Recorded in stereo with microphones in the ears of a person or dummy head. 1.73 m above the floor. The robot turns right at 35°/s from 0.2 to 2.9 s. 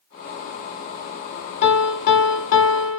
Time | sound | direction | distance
1.6 | a piano | 35° left | 0.8 m